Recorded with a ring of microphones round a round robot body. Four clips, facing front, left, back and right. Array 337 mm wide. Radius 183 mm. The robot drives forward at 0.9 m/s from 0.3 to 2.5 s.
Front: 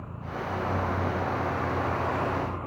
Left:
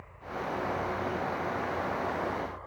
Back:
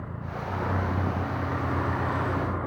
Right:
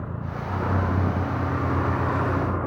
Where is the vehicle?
95° right; by 2.7 s 100° right.